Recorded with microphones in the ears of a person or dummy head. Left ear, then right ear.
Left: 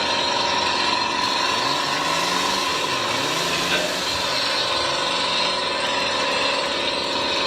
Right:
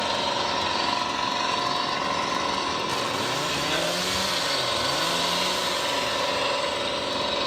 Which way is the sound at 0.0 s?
25° left (ahead or behind).